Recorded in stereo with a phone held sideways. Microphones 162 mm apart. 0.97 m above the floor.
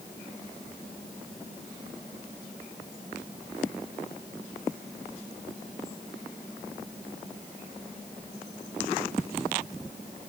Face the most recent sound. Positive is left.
No sound to turn to.